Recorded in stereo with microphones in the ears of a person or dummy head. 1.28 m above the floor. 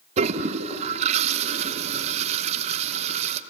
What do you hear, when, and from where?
0.2 s a toilet flushing: 35° right (ahead or behind), 0.9 m